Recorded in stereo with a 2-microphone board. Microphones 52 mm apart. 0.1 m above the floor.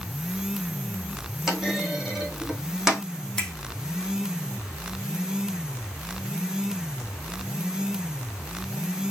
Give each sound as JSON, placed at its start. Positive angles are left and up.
{"t": 1.5, "sound": "a clunk", "side_deg": -10, "distance_m": 2.5}
{"t": 3.4, "sound": "a finger snap", "side_deg": 5, "distance_m": 3.0}